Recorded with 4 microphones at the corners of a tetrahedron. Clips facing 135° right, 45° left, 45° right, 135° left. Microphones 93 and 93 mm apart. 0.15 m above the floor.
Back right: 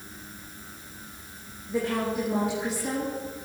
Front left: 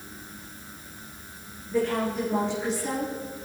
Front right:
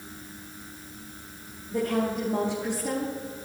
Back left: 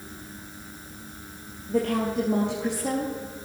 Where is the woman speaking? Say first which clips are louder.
Front left 2 dB, back left 2 dB; 145° left, 3 m.